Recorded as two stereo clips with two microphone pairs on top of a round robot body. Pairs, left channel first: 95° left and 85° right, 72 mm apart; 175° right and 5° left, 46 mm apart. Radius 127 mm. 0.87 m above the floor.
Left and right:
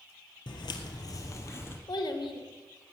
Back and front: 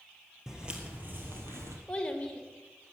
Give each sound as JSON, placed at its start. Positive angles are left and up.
{"t": 0.5, "sound": "footsteps", "azimuth_deg": 85, "distance_m": 1.3}
{"t": 1.9, "sound": "a child speaking", "azimuth_deg": 115, "distance_m": 2.0}